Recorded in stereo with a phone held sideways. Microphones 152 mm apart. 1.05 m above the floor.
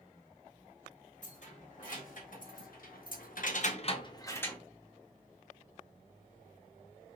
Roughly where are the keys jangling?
Left.